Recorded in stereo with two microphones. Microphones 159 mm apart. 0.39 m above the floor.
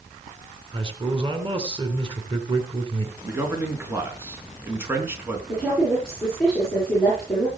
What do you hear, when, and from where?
0.7 s a man speaking: 35° right (ahead or behind), 3.5 m
3.2 s a man speaking: 15° right (ahead or behind), 4 m
5.5 s a woman speaking: centre (ahead or behind), 8 m